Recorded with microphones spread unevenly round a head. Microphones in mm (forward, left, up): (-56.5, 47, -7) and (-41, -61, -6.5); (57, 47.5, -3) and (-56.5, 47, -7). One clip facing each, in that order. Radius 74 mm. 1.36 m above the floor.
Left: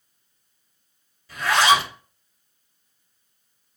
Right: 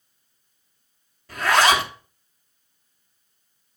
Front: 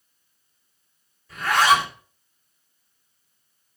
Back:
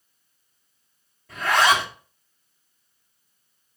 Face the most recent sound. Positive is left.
turn(degrees=-125)